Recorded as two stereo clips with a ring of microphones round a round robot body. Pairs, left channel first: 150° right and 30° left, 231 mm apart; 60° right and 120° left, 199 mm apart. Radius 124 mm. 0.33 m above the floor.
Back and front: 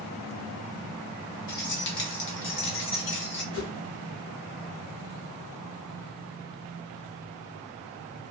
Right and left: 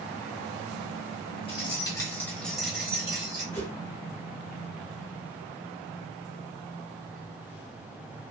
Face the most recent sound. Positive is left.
turn(degrees=-135)